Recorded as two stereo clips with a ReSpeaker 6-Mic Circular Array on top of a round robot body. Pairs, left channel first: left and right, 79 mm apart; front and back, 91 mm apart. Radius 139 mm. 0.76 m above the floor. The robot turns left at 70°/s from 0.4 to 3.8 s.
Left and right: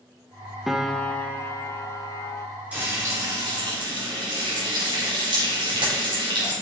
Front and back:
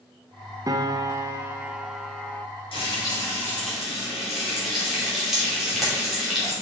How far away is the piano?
About 1.0 m.